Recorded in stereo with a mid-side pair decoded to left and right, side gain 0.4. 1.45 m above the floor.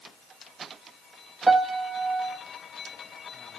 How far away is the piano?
About 1.4 m.